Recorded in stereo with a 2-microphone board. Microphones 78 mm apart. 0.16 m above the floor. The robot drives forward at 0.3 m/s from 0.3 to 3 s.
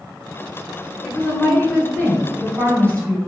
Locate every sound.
1.0 s a woman speaking: 20° left (ahead or behind), 1.1 m; by 3.2 s 15° left (ahead or behind), 1.4 m